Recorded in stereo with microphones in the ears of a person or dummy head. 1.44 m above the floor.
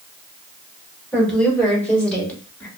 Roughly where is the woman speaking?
Centre.